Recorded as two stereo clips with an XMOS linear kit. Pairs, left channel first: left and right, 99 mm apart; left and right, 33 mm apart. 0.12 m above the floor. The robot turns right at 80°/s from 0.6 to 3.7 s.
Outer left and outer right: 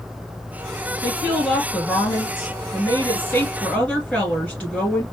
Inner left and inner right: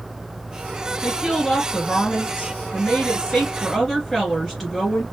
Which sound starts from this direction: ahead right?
A woman speaking, at 1.0 s.